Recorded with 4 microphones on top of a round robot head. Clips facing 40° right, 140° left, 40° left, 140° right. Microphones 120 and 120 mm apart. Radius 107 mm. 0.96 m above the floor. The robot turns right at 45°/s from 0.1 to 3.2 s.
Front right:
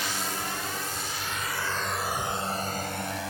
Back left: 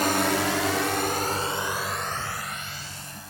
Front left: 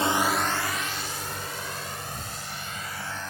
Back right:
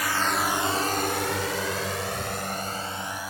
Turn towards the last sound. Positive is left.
turn(degrees=-60)